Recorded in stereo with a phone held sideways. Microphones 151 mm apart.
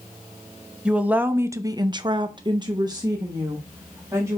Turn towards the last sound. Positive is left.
turn(degrees=-20)  # may be behind; listen again after turning